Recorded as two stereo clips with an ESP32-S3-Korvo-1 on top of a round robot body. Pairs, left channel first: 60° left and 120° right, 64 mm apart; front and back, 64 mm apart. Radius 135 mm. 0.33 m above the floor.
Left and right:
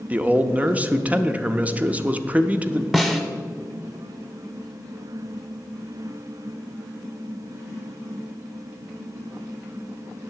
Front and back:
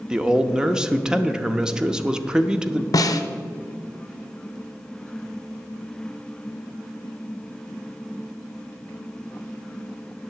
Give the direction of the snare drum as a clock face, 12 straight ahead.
1 o'clock.